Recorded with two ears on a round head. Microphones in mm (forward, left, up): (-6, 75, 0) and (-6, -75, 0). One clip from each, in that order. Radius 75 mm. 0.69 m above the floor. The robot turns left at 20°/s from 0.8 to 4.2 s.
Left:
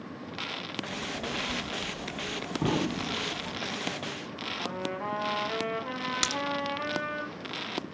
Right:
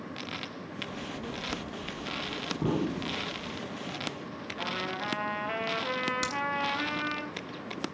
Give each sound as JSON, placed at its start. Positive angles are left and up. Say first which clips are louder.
{"t": 0.9, "sound": "a child speaking", "louder": "left 4 dB", "azimuth_deg": 80, "distance_m": 0.8}
{"t": 2.6, "sound": "an explosion", "louder": "left 3 dB", "side_deg": 65, "distance_m": 1.4}
{"t": 4.6, "sound": "a trumpet", "louder": "right 3 dB", "side_deg": -70, "distance_m": 3.0}
{"t": 6.2, "sound": "a crack", "louder": "left 3 dB", "side_deg": 30, "distance_m": 1.1}